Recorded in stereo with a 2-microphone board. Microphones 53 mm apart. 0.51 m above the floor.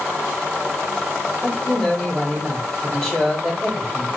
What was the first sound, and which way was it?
A man speaking, 5° right (ahead or behind).